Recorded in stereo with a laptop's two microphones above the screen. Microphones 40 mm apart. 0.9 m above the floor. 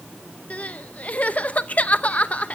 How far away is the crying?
About 0.8 m.